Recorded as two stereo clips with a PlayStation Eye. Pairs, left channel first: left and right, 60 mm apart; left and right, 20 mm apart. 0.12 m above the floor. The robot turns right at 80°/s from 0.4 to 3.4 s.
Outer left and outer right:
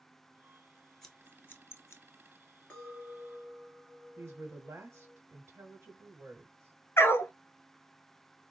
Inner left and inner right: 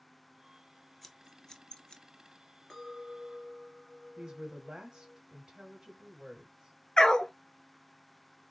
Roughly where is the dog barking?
Left.